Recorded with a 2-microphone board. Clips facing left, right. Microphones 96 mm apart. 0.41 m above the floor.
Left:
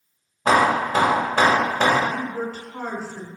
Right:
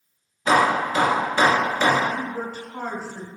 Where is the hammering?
60° left (ahead or behind), 1.1 m.